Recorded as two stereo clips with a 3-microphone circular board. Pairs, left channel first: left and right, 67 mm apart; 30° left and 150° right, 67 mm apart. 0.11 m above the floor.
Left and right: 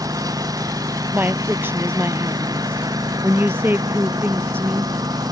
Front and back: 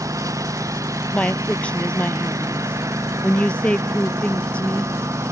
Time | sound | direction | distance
0.0 | a lawn mower | 115° right | ?
1.1 | a woman speaking | 40° right | ?